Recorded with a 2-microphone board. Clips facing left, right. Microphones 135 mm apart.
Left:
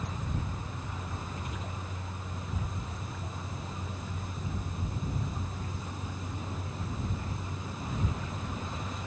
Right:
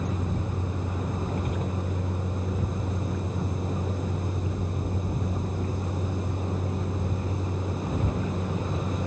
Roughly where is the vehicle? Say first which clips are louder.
Right 7 dB; right.